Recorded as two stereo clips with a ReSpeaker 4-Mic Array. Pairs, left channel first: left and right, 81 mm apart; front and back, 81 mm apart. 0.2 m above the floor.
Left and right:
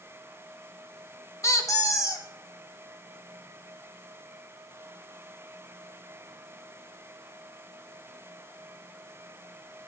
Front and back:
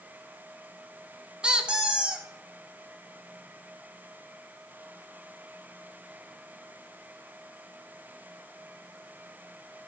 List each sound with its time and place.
1.4 s a squeak: 110° left, 0.9 m